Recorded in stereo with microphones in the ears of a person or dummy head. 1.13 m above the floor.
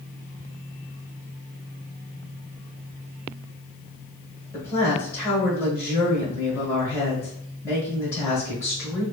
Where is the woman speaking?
15° left (ahead or behind), 1.8 m.